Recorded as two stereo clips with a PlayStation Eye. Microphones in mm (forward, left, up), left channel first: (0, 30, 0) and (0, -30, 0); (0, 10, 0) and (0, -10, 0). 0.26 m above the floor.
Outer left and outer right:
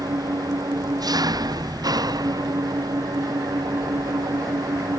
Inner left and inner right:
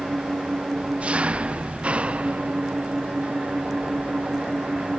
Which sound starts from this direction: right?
An engine running, at 0.0 s.